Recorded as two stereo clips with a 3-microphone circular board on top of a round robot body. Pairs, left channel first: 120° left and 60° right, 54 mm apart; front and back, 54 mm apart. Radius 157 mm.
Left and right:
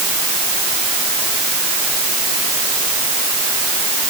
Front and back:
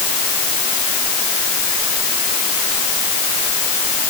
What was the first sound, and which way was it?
Only background noise.